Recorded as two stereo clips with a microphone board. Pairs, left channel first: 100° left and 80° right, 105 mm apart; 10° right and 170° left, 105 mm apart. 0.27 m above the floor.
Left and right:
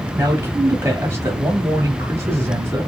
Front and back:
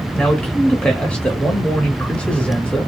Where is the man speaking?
75° right, 1.0 m.